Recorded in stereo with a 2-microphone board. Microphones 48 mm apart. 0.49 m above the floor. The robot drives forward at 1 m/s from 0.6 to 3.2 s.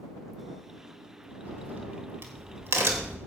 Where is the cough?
I don't hear a cough.